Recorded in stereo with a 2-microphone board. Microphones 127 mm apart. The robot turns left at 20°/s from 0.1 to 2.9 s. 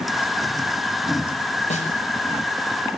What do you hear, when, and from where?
1.7 s a snare drum: 60° left (ahead or behind), 6 m; by 1.9 s 65° left (ahead or behind), 6 m